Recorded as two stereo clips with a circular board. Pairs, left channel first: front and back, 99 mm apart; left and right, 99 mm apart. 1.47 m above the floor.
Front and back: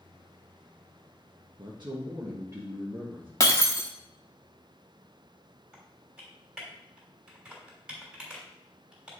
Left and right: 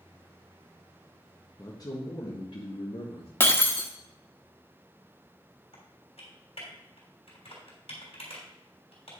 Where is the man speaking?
145° left, 1.4 m; by 3.3 s 110° left, 2 m.